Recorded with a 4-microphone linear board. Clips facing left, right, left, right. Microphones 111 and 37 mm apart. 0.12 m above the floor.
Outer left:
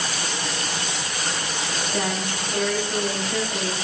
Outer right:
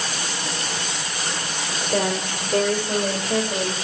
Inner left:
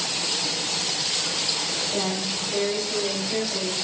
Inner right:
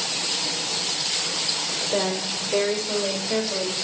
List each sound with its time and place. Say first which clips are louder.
1.9 s a woman speaking: outer right 5 dB, inner right 5 dB; 65° right (ahead or behind), 6.5 m; by 3.7 s 50° right (ahead or behind), 7.5 m